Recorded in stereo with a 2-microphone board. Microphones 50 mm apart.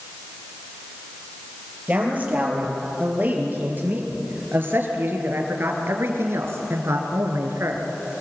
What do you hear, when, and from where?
1.9 s a man speaking: 30° right (ahead or behind), 6 m; by 7.8 s 65° right (ahead or behind), 3.5 m